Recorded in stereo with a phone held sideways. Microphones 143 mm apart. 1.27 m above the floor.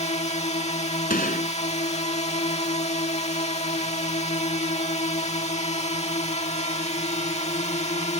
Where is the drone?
50° left (ahead or behind).